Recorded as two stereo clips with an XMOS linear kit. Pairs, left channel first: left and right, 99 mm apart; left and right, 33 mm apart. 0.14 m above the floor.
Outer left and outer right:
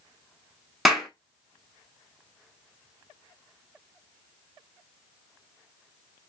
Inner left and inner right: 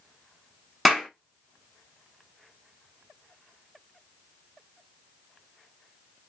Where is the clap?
Centre (ahead or behind), 0.8 m.